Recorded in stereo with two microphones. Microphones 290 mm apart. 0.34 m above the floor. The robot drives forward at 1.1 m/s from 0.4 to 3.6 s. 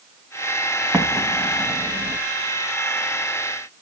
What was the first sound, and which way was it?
An explosion, 5° right (ahead or behind).